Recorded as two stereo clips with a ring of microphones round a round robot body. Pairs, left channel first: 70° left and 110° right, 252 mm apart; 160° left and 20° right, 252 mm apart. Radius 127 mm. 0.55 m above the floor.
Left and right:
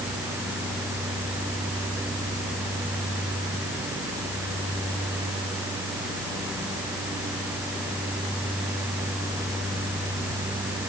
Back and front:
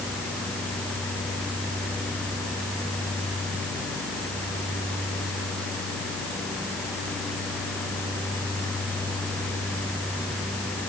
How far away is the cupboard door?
I don't hear a cupboard door.